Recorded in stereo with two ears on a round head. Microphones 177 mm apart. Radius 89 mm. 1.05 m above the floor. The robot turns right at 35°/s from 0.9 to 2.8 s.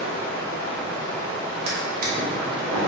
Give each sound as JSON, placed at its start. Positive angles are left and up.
{"t": 0.0, "sound": "running water", "azimuth_deg": 120, "distance_m": 1.8}
{"t": 1.7, "sound": "a drawer", "side_deg": -30, "distance_m": 0.9}